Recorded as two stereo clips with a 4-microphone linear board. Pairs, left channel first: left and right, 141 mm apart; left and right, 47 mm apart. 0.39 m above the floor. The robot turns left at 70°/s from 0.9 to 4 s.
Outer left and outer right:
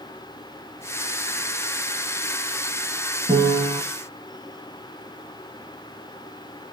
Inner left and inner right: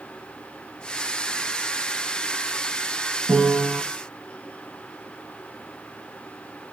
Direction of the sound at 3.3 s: 140° right.